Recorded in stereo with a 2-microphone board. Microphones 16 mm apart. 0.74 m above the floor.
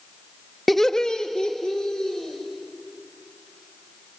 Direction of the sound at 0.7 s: 5° left (ahead or behind).